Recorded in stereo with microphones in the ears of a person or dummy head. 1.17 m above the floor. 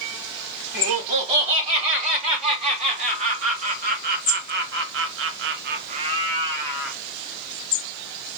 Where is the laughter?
30° right (ahead or behind), 3.5 m; by 7.0 s 5° right (ahead or behind), 1.3 m.